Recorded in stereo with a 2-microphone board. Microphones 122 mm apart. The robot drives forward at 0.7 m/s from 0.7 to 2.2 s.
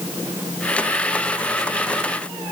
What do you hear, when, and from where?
Only background noise.